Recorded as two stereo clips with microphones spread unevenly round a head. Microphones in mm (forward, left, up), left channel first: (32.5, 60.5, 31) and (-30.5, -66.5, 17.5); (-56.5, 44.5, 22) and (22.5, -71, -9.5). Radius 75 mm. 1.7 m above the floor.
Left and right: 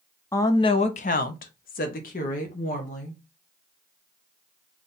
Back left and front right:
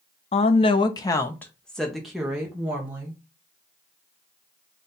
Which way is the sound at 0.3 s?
130° left.